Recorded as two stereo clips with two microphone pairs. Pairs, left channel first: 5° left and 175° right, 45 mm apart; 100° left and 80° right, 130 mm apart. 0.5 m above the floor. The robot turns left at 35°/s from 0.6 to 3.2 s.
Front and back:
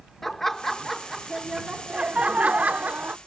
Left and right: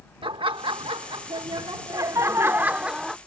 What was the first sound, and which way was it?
Laughter, 75° right.